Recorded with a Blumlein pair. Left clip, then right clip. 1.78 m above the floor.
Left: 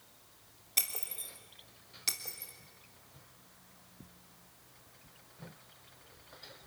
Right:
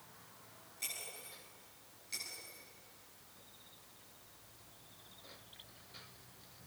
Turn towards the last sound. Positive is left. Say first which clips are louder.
# left 8 dB
turn(degrees=45)